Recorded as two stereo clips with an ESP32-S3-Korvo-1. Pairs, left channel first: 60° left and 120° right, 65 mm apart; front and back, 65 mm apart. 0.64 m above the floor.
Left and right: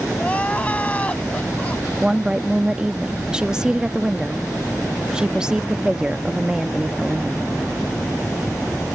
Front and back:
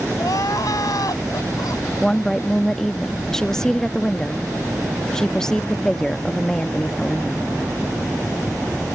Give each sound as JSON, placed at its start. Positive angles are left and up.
{"t": 0.2, "sound": "crying", "azimuth_deg": -5}
{"t": 2.0, "sound": "a woman speaking", "azimuth_deg": -65}